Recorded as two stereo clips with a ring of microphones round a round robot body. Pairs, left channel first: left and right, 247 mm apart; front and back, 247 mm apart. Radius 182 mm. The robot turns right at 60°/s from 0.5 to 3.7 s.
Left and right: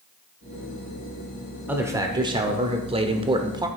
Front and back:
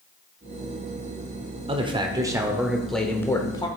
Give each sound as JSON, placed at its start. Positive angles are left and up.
{"t": 1.7, "sound": "a man speaking", "azimuth_deg": -160, "distance_m": 1.0}